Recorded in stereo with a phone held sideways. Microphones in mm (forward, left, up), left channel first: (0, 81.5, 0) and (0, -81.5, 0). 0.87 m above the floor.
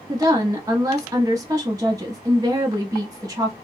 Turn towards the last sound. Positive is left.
turn(degrees=-20)  # may be behind; listen again after turning